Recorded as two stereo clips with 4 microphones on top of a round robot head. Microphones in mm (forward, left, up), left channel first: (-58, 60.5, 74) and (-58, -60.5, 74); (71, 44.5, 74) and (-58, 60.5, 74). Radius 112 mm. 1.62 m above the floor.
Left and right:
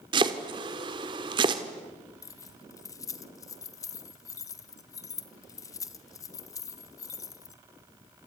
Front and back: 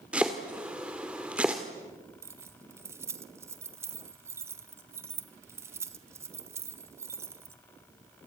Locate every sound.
0.1 s chopping: 105° right, 1.4 m
2.2 s keys jangling: 120° left, 0.5 m